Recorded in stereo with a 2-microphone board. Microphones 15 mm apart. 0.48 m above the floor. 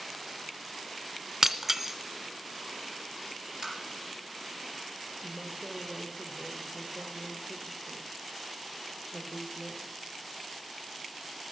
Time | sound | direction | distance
1.4 | breaking glass | 25° right (ahead or behind) | 1.2 m
3.6 | tapping | 55° right (ahead or behind) | 4 m
5.2 | a woman speaking | 30° right (ahead or behind) | 1.4 m